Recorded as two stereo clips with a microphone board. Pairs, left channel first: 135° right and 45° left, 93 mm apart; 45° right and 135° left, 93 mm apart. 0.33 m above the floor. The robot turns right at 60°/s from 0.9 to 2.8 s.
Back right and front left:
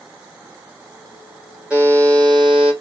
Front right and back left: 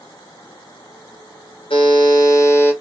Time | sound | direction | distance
1.7 | a buzzer | 35° right | 1.1 m